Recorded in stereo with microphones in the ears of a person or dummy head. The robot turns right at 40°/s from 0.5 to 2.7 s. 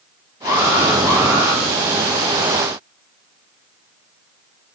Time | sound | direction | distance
0.5 | an alarm | 45° left | 5 m